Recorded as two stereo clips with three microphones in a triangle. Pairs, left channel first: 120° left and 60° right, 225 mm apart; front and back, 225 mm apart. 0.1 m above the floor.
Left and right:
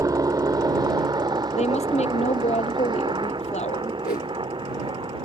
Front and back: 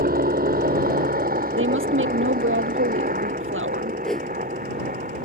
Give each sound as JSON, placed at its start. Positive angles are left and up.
{"t": 0.0, "sound": "a helicopter", "azimuth_deg": -135}
{"t": 1.6, "sound": "a woman speaking", "azimuth_deg": 175}
{"t": 4.0, "sound": "a whoosh", "azimuth_deg": 85}